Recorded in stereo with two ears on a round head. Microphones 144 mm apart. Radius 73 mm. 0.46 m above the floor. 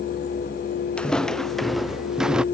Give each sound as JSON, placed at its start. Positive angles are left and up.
{"t": 1.0, "sound": "footsteps", "side_deg": 5}